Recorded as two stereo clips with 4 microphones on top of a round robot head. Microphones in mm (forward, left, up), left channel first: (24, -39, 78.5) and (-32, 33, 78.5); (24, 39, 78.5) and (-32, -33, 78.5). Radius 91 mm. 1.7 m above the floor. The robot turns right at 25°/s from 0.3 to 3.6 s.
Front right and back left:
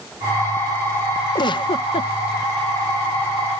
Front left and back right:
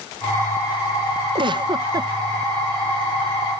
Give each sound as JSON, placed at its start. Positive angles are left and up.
{"t": 1.4, "sound": "a giggle", "azimuth_deg": -95}